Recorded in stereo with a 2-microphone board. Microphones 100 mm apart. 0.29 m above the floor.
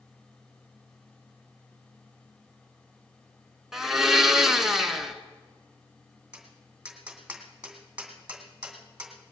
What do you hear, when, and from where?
3.7 s a blender: 5° right (ahead or behind), 1.3 m
6.3 s tapping: 10° right (ahead or behind), 2.5 m